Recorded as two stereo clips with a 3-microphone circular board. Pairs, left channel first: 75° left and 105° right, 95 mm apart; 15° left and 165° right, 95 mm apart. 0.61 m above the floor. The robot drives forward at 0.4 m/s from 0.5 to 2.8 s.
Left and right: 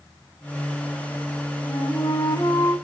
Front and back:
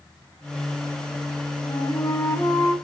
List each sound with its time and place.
1.6 s a flute: 45° left, 1.0 m; by 2.7 s 80° left, 0.8 m